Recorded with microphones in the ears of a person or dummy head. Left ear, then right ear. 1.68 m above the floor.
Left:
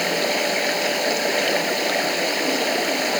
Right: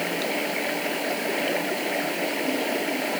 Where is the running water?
85° left.